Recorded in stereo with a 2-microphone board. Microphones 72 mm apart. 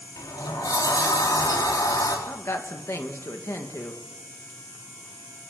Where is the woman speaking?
40° left (ahead or behind), 2.5 m.